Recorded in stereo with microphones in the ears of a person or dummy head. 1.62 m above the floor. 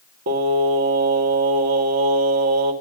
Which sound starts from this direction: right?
Singing, at 0.3 s.